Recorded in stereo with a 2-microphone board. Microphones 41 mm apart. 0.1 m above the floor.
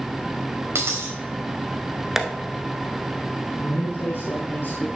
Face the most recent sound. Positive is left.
turn(degrees=55)  # may be behind; listen again after turning